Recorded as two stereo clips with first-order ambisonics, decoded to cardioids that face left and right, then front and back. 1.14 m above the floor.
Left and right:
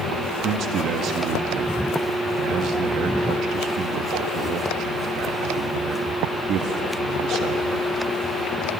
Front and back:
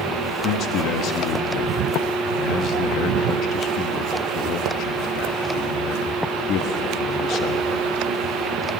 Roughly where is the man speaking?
Ahead right.